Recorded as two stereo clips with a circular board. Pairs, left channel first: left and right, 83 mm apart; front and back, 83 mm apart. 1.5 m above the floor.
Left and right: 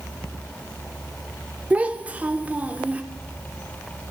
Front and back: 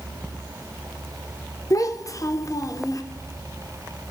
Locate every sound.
1.7 s a child speaking: 25° right, 0.5 m